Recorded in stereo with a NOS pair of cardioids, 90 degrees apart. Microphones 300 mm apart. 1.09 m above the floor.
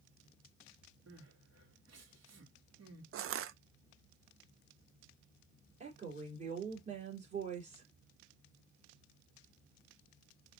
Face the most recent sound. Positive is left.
turn(degrees=-25)